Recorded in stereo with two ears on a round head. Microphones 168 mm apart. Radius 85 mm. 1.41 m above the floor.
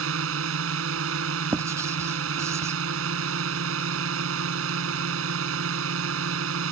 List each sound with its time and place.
0.0 s a drone: 80° right
1.5 s writing: 15° right (ahead or behind)